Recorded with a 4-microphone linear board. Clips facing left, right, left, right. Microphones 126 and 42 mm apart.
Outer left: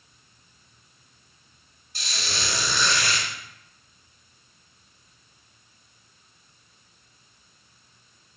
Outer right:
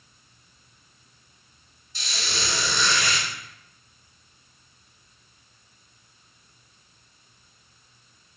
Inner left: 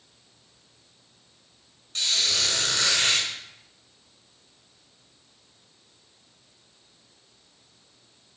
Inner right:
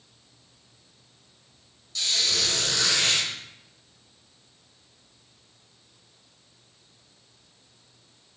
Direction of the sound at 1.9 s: 50° left (ahead or behind).